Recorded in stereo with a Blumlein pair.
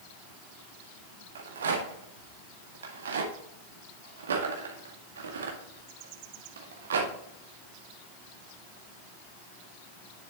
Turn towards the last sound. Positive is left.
turn(degrees=-65)